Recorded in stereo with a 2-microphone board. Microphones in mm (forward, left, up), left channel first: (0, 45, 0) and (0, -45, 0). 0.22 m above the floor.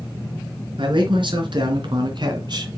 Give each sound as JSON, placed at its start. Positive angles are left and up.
{"t": 0.8, "sound": "a man speaking", "side_deg": -65, "distance_m": 3.0}